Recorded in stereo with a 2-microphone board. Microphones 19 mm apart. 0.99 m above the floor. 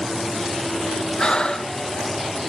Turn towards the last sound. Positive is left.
turn(degrees=50)  # may be behind; listen again after turning